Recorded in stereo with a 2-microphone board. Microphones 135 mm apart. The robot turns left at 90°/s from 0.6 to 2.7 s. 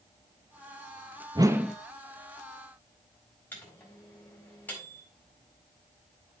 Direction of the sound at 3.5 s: 15° left (ahead or behind).